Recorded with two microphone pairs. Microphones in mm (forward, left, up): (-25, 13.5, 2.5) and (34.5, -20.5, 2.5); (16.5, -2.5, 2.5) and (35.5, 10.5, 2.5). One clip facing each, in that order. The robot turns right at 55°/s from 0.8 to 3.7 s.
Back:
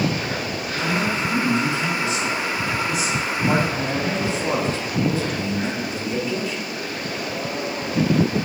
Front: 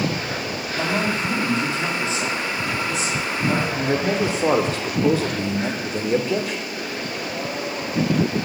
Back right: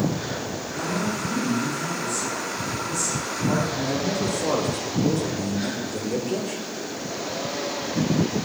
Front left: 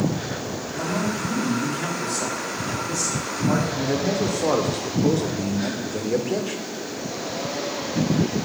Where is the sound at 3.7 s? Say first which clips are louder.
Front 2 dB, front left 2 dB; 15° right, 1.6 m.